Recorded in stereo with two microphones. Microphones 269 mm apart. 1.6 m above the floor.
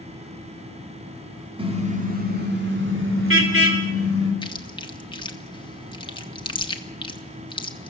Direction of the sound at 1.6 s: 20° right (ahead or behind).